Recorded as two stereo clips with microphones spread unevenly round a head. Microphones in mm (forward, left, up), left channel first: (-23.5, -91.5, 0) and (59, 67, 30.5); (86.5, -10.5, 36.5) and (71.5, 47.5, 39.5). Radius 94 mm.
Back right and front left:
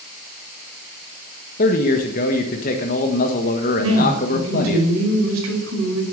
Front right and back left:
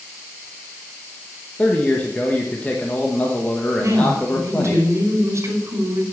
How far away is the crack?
No crack in this recording.